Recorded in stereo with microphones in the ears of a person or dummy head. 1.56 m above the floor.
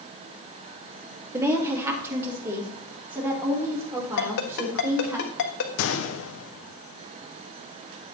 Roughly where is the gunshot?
Left.